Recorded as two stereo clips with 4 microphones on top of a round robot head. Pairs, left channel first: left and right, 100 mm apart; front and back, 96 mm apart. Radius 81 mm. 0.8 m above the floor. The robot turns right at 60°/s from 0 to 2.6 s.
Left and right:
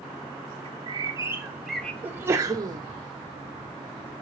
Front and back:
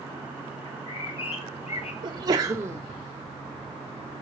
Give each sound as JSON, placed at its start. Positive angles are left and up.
{"t": 0.7, "sound": "a bird", "azimuth_deg": -65, "distance_m": 1.0}
{"t": 2.0, "sound": "a sneeze", "azimuth_deg": -160, "distance_m": 0.7}